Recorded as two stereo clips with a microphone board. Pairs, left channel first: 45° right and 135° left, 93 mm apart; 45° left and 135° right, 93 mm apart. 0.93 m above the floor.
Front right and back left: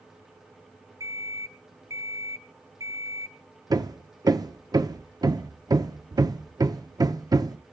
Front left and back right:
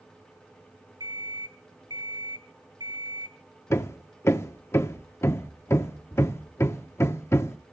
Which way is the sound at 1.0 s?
175° right.